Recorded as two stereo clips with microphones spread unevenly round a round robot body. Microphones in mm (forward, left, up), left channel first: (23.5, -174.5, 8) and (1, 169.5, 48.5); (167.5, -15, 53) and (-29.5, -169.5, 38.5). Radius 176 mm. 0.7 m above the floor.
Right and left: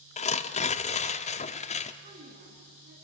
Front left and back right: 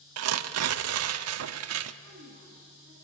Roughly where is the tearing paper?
Behind right.